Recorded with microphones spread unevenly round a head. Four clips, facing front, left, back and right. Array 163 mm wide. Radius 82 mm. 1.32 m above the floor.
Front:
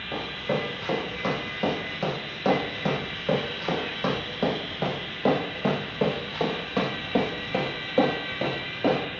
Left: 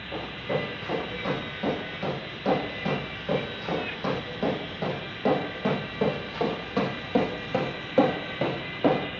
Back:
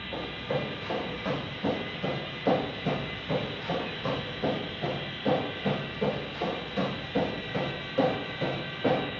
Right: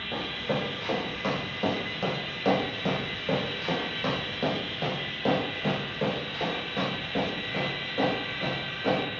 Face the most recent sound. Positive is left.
turn(degrees=60)